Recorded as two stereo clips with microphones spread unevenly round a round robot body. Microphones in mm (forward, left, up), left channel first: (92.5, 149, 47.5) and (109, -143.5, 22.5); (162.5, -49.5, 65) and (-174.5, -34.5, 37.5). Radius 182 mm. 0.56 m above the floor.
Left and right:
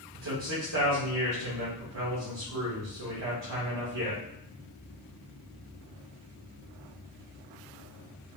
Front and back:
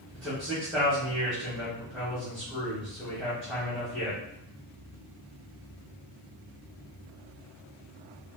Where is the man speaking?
95° right, 1.2 m.